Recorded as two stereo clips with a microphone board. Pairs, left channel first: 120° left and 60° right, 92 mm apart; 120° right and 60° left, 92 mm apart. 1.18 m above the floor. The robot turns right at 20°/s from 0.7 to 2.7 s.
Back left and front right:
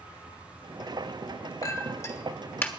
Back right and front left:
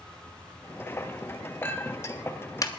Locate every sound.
1.6 s a clink: 170° left, 1.3 m; by 2.7 s 170° right, 1.3 m